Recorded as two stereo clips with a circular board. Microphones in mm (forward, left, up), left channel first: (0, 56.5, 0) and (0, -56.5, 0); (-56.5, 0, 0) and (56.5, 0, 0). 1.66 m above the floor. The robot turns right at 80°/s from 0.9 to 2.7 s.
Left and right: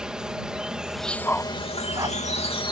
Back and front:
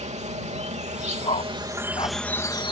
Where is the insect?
5° right; by 2.7 s 135° left.